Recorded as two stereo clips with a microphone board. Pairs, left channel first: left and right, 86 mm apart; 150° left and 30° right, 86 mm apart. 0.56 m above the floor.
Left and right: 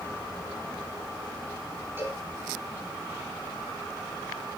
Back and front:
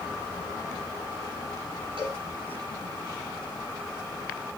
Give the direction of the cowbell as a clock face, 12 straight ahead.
1 o'clock.